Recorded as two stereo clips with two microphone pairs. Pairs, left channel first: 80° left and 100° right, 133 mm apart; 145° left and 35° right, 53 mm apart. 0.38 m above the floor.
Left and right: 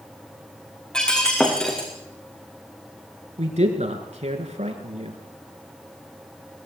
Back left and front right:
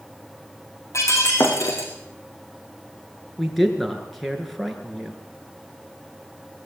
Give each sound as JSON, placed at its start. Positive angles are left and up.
{"t": 0.9, "sound": "breaking glass", "azimuth_deg": 165, "distance_m": 5.0}
{"t": 3.4, "sound": "a man speaking", "azimuth_deg": -130, "distance_m": 4.5}